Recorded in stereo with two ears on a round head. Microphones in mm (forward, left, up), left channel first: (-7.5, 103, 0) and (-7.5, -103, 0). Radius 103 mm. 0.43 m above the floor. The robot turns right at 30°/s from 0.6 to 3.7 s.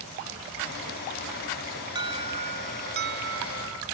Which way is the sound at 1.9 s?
160° right.